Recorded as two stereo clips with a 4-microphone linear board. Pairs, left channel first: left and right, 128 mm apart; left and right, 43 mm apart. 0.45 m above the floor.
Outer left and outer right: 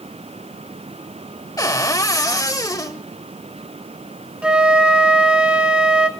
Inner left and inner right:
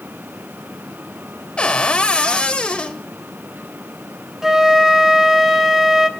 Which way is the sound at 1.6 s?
25° left (ahead or behind).